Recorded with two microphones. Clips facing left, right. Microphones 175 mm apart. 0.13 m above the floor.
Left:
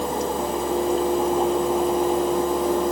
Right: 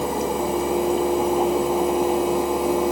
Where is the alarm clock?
I don't hear an alarm clock.